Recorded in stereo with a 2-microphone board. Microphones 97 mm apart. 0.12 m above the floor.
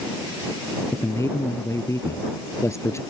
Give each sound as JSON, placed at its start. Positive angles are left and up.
{"t": 0.9, "sound": "a man speaking", "side_deg": 30}